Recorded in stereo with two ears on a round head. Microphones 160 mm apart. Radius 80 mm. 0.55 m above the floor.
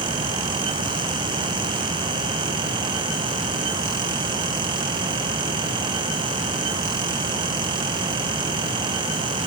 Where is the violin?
No violin in this recording.